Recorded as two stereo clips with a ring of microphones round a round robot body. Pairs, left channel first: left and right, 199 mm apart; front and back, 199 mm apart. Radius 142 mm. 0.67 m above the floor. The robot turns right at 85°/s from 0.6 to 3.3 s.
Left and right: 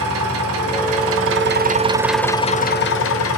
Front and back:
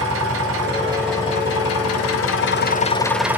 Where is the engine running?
130° right, 0.9 m; by 3.4 s 100° left, 0.9 m.